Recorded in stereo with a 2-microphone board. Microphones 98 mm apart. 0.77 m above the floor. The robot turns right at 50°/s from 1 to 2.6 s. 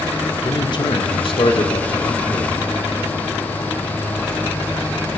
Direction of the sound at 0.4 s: 60° left.